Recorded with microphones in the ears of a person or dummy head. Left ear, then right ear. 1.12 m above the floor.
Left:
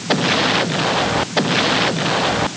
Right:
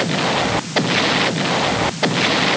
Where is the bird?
No bird in this recording.